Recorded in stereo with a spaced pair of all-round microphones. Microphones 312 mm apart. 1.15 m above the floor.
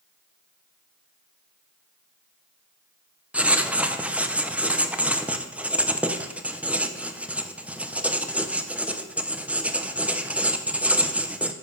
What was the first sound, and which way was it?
Writing, 5° right (ahead or behind).